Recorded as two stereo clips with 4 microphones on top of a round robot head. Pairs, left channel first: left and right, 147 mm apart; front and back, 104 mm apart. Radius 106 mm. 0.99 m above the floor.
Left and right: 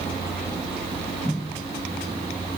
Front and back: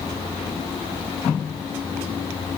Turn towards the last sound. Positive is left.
No sound to turn to.